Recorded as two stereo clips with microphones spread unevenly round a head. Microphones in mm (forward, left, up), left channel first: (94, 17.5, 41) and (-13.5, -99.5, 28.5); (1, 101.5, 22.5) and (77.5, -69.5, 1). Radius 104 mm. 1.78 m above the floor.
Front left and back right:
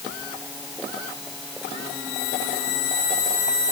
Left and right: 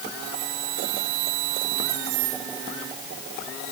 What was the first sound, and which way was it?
Only background noise.